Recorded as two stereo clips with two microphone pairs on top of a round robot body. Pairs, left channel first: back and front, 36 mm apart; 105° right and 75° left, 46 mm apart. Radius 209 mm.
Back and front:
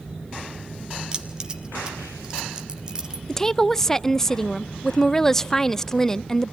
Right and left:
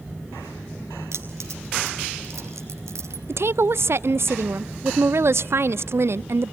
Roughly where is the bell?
I don't hear a bell.